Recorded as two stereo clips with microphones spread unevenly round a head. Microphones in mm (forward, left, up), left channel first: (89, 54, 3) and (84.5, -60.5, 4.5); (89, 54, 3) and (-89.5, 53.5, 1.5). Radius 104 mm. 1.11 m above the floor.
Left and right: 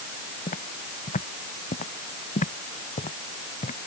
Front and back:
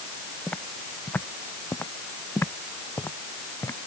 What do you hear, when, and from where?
0.5 s footsteps: 80° left; by 3.8 s 75° left